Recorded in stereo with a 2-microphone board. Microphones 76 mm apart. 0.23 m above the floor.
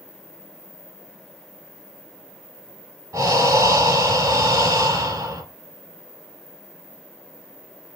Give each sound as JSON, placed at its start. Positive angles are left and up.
{"t": 3.1, "sound": "breathing", "side_deg": -50, "distance_m": 1.0}